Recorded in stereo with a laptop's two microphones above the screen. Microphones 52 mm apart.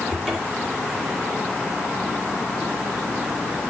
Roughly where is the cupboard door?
Centre.